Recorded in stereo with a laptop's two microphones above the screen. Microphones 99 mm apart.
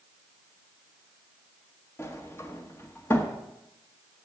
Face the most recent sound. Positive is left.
turn(degrees=25)  # may be behind; listen again after turning